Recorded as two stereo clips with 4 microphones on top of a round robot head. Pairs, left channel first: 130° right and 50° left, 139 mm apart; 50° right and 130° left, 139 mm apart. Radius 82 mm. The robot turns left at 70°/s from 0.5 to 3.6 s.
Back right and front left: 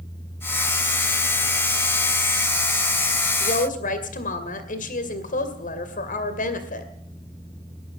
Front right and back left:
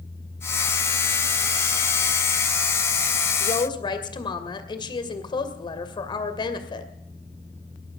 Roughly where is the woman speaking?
Right.